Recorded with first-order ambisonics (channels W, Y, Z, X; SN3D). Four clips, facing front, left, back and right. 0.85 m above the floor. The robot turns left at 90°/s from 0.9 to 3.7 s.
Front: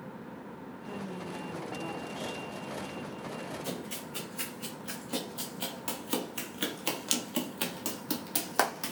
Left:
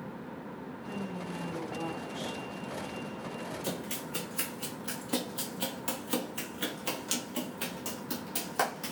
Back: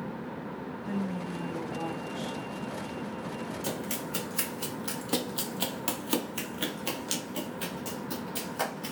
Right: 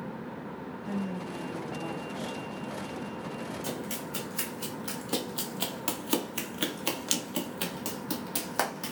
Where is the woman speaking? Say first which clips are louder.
Right 4 dB, back 5 dB; 145° right, 1.1 m; by 2.4 s 80° left, 1.1 m.